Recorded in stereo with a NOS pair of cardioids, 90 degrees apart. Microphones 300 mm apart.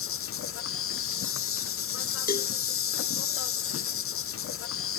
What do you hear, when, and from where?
0.0 s an insect: 45° left
2.3 s a cowbell: 30° left